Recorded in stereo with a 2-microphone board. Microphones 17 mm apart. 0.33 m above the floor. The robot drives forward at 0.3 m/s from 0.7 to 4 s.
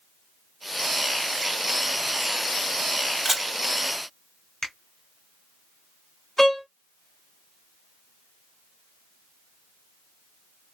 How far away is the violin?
About 1.1 m.